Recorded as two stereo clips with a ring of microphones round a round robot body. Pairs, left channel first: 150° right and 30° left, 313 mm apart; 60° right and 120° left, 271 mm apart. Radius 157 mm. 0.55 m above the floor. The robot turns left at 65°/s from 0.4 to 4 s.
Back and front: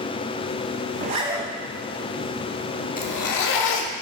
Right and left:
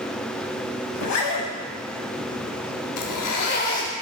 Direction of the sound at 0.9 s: 30° right.